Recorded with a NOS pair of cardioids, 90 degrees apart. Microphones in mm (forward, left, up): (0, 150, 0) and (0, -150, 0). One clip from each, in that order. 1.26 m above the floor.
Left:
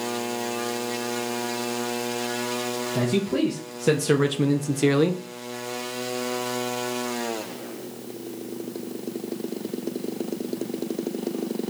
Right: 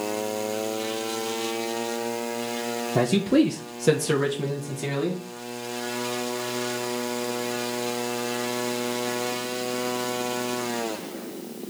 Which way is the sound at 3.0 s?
45° right.